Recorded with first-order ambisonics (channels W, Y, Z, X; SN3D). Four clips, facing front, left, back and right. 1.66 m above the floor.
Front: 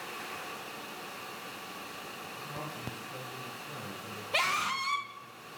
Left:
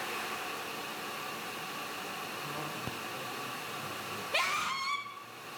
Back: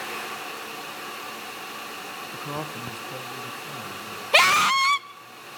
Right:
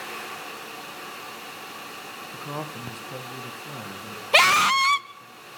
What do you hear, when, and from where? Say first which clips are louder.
2.3 s a woman speaking: right 4 dB, back 9 dB; 145° right, 1.4 m; by 5.3 s 90° right, 3 m
4.3 s a scream: right 15 dB, back 12 dB; 130° right, 0.7 m